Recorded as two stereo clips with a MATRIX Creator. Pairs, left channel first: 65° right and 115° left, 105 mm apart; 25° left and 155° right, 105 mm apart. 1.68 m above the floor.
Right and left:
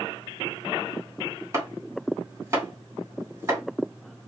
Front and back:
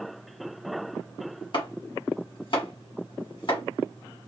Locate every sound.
1.5 s chopping: 50° left, 2.5 m